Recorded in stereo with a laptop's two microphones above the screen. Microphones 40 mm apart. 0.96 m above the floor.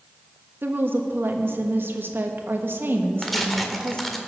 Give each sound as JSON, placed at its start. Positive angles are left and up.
{"t": 0.6, "sound": "a woman speaking", "side_deg": -60, "distance_m": 1.3}
{"t": 3.2, "sound": "tearing paper", "side_deg": 5, "distance_m": 1.8}